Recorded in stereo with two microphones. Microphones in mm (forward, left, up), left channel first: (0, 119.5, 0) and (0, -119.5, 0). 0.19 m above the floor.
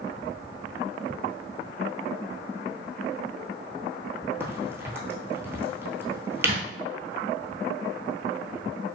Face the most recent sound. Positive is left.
turn(degrees=-25)  # may be behind; listen again after turning